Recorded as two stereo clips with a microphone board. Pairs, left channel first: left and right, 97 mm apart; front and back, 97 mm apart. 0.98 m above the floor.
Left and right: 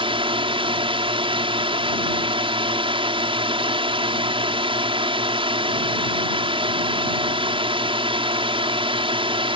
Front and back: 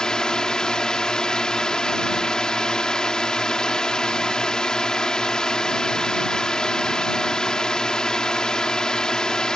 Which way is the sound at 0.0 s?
80° right.